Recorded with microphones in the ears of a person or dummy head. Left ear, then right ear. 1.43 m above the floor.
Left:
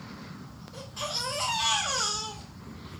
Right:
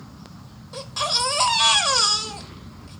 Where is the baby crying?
55° right (ahead or behind), 0.6 m.